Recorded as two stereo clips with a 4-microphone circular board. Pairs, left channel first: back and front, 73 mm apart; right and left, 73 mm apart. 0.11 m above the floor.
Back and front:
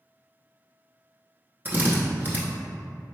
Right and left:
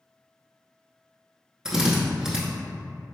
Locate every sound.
1.6 s a drill: 20° left, 0.8 m